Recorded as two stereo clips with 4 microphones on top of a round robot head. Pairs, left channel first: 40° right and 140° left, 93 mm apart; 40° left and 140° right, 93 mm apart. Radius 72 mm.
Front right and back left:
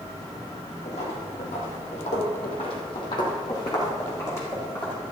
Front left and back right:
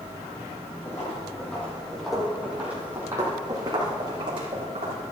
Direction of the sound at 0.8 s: 20° right.